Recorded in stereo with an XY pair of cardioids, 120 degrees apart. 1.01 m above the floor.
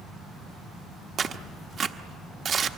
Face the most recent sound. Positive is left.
turn(degrees=-45)